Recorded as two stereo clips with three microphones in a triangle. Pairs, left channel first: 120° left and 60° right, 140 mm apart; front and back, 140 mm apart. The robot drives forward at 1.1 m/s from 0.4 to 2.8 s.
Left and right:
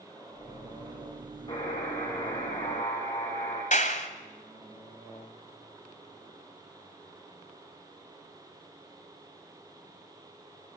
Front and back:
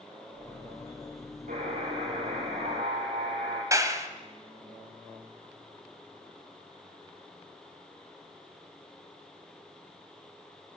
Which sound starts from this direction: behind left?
A clap, at 3.7 s.